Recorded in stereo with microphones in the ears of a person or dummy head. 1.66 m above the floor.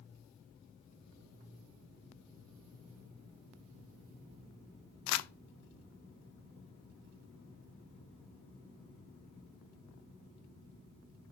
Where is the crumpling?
75° left (ahead or behind), 0.6 m.